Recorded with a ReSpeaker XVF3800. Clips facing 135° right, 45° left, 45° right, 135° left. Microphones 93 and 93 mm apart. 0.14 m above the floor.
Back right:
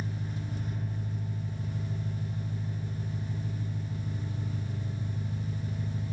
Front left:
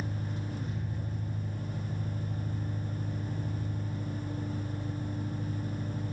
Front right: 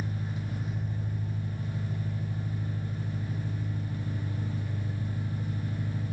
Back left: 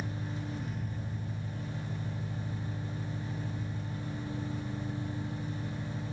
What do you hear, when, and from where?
0.0 s an engine running: 25° left, 5.5 m